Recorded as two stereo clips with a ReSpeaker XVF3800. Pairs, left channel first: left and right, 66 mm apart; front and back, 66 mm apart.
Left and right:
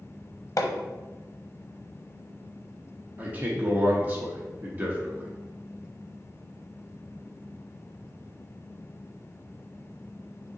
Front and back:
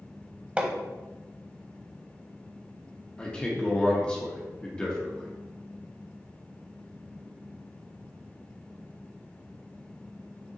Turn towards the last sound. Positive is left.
turn(degrees=-60)